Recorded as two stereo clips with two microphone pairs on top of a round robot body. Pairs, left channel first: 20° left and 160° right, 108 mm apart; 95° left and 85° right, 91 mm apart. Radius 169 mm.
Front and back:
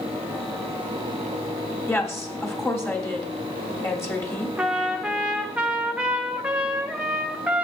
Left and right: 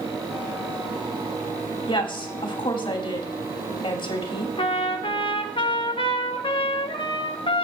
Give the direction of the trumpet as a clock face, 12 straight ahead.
8 o'clock.